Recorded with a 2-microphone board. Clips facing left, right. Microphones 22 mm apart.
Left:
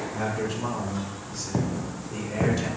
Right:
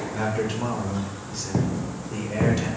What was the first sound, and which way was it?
A man speaking, 50° right (ahead or behind).